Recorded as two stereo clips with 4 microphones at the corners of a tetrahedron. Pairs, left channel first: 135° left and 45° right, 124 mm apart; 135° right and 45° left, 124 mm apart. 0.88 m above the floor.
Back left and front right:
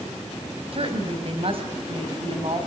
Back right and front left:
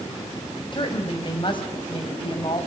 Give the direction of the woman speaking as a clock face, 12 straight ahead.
3 o'clock.